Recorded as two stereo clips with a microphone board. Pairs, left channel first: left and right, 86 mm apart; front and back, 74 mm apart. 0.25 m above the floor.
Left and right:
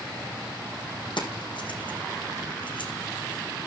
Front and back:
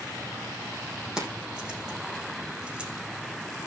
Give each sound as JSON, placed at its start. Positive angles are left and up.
{"t": 1.2, "sound": "keys jangling", "azimuth_deg": 100, "distance_m": 6.5}